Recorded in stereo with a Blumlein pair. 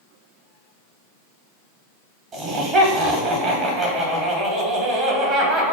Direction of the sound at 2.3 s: 25° right.